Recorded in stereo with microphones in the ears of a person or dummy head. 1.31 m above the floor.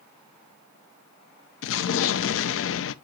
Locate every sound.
1.6 s an explosion: 65° left (ahead or behind), 0.5 m